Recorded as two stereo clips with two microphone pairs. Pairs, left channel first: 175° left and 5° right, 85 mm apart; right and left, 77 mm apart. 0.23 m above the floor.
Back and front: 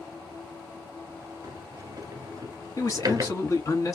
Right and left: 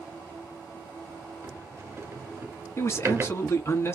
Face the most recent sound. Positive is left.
turn(degrees=-140)